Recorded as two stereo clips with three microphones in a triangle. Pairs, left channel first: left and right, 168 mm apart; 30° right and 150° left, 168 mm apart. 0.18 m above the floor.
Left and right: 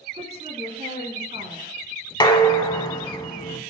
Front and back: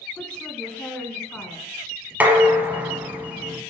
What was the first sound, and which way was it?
A woman speaking, 115° right.